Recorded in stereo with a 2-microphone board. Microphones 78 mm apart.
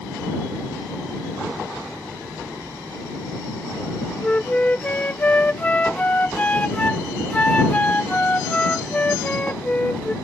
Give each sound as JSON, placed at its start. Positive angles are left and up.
{"t": 4.2, "sound": "a flute", "side_deg": 20}